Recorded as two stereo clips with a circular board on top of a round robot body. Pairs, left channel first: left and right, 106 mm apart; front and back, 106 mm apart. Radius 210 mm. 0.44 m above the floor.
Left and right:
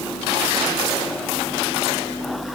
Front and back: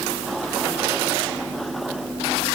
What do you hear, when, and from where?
Only background noise.